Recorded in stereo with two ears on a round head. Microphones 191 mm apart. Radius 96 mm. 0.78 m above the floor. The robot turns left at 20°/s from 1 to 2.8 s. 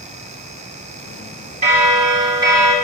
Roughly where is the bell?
Right.